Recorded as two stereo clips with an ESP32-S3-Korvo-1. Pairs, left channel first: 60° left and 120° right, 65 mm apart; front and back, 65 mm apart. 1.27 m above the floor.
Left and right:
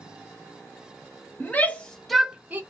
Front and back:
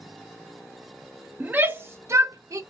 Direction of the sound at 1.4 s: 120° left.